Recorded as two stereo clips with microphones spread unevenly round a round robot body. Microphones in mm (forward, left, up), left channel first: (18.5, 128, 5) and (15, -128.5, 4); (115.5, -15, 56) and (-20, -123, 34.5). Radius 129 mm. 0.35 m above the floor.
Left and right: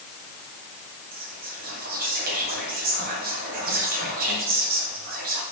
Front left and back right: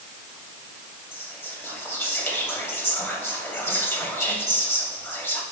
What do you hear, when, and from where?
1.1 s whispering: 40° right, 2.5 m